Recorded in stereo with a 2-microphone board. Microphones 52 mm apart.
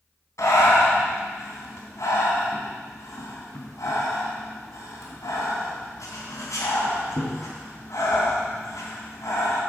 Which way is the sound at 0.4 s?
80° left.